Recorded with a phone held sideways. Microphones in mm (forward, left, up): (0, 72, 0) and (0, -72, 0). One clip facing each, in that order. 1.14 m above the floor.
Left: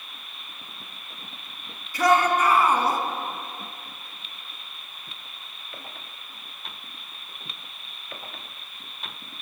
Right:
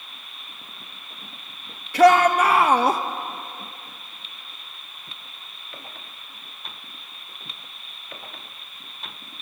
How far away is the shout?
About 1.6 m.